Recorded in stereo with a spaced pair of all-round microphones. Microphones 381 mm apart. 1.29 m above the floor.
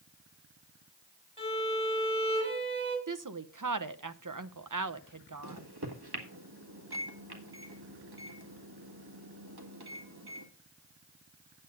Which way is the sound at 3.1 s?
55° right (ahead or behind).